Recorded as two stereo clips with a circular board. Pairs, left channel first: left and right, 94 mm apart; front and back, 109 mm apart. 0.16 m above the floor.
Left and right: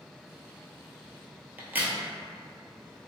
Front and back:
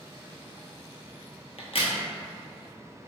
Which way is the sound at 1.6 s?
20° right.